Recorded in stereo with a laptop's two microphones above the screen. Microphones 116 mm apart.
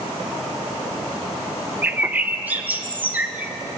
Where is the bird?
15° right (ahead or behind), 0.9 m.